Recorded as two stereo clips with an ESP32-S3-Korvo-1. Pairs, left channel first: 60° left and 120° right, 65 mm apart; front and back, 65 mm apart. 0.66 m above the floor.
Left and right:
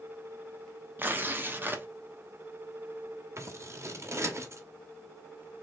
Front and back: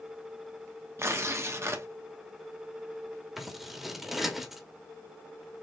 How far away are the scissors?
About 1.1 m.